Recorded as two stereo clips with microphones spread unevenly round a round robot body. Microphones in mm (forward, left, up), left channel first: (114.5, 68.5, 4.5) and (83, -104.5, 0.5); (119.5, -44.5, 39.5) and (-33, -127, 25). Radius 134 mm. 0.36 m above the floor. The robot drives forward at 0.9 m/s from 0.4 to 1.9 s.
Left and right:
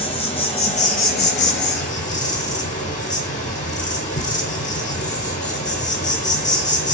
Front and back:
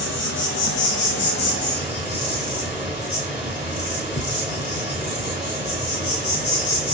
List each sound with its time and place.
0.0 s an insect: 25° left, 1.2 m; by 7.0 s 120° left, 0.6 m